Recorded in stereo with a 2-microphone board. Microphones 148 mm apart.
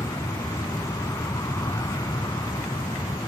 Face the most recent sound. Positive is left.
turn(degrees=25)  # may be behind; listen again after turning